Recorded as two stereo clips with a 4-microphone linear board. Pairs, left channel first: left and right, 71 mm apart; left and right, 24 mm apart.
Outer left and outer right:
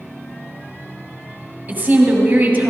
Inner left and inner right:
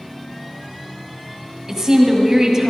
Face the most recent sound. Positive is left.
turn(degrees=-25)  # may be behind; listen again after turning